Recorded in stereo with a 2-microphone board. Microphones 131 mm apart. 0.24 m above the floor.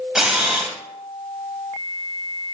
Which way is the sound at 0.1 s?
5° right (ahead or behind).